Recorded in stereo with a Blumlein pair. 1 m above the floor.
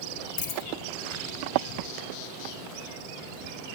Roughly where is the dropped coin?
Ahead left.